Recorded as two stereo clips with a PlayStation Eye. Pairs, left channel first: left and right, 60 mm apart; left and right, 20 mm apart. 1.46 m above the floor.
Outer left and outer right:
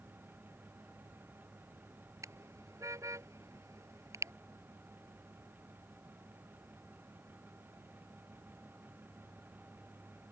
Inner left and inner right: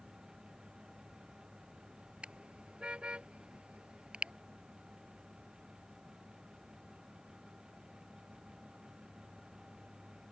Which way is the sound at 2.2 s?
60° right (ahead or behind).